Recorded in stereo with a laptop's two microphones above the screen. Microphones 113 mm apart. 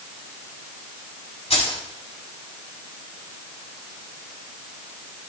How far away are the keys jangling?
About 5.5 m.